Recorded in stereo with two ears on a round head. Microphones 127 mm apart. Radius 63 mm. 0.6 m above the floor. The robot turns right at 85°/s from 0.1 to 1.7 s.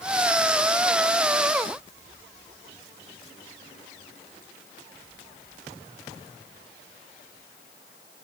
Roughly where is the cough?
I don't hear a cough.